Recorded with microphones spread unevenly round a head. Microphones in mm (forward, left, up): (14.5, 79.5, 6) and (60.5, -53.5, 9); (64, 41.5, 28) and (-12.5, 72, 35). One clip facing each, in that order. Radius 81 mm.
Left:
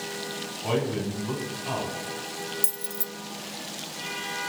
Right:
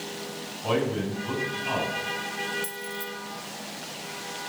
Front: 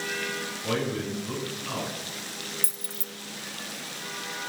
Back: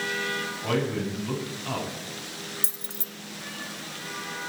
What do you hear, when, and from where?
0.6 s a man speaking: 165° right, 8.5 m
2.6 s keys jangling: 95° left, 0.8 m